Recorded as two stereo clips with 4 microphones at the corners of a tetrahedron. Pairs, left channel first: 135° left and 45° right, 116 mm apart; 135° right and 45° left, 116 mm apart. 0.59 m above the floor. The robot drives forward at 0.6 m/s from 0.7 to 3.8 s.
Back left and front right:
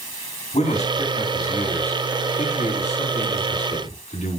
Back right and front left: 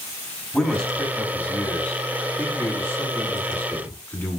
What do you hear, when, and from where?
0.5 s a man speaking: 140° left, 4 m; by 4.4 s 150° left, 5.5 m